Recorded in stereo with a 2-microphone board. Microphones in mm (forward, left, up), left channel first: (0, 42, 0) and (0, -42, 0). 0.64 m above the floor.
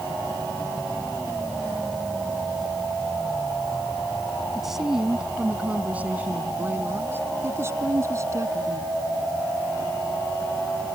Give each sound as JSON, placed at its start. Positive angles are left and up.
{"t": 4.5, "sound": "a woman speaking", "side_deg": -5}